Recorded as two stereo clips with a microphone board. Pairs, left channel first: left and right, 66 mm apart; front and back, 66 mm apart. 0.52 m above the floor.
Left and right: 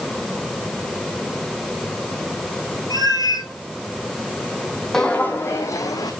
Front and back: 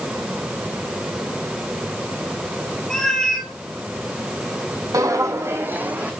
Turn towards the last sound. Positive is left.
turn(degrees=110)